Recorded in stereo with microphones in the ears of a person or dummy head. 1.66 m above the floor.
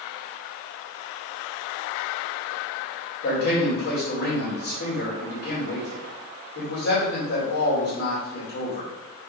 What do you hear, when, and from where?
3.2 s a man speaking: 60° left (ahead or behind), 2.5 m